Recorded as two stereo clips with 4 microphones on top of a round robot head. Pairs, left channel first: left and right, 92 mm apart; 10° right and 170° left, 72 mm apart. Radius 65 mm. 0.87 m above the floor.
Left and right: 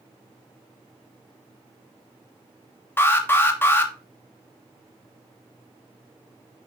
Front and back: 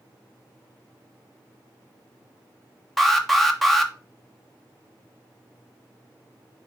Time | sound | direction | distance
3.0 | an alarm | 80° left | 1.4 m